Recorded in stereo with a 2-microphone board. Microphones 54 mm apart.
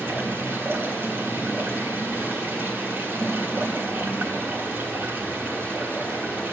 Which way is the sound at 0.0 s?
40° right (ahead or behind).